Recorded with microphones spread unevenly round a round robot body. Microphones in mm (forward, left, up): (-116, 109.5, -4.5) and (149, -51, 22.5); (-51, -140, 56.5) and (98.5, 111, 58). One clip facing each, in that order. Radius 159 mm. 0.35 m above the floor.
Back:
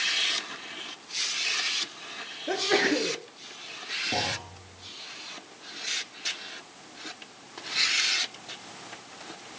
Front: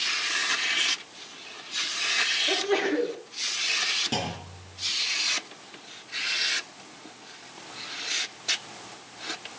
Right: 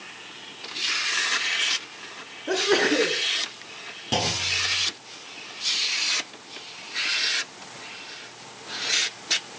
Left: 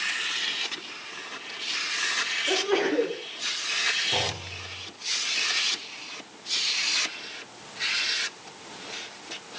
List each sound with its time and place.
2.5 s a sneeze: 170° right, 4.5 m
4.1 s a clunk: 100° right, 7 m